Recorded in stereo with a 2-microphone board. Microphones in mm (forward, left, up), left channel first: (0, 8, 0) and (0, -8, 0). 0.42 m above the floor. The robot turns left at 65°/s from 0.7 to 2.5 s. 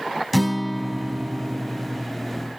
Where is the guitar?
Straight ahead, 0.8 m; by 2.1 s 85° right, 0.8 m.